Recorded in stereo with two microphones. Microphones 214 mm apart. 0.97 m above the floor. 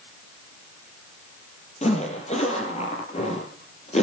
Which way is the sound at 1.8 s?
30° left (ahead or behind).